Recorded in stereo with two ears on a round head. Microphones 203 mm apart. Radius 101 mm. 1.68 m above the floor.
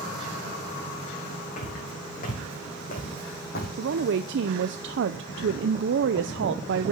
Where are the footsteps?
35° left (ahead or behind), 4.5 m; by 3.7 s 45° left (ahead or behind), 3.5 m.